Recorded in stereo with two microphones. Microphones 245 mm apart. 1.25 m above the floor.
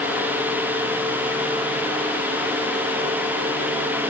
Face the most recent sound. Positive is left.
No sound to turn to.